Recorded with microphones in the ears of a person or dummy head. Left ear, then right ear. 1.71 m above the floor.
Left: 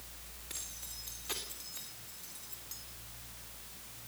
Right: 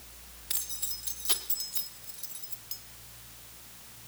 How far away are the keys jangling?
About 3.5 m.